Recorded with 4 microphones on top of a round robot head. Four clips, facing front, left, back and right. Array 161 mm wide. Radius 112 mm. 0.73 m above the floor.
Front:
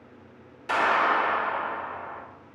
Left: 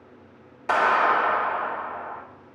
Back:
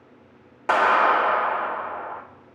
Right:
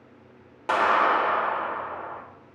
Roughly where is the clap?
Behind right.